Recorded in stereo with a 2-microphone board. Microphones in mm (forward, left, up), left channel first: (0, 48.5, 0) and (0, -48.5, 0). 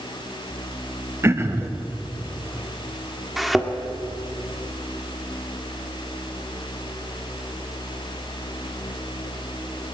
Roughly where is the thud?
Centre.